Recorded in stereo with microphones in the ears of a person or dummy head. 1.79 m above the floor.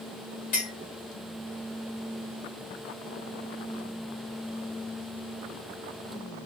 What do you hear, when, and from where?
0.5 s a clink: 35° left (ahead or behind), 1.1 m